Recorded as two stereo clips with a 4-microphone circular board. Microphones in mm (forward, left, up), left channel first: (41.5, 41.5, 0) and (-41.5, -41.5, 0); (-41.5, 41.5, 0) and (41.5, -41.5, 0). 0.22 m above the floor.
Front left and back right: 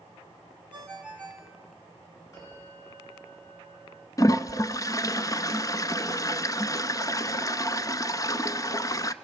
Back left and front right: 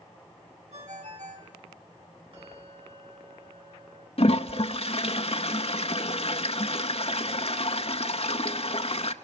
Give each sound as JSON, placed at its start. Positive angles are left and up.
{"t": 0.7, "sound": "a ringtone", "azimuth_deg": -30, "distance_m": 4.5}
{"t": 2.3, "sound": "a bell", "azimuth_deg": -10, "distance_m": 4.5}
{"t": 4.2, "sound": "a toilet flushing", "azimuth_deg": 105, "distance_m": 0.6}